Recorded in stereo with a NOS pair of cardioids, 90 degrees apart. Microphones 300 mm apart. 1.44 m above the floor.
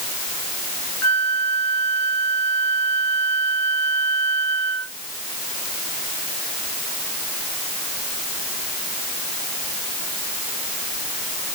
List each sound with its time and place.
1.0 s a flute: 60° left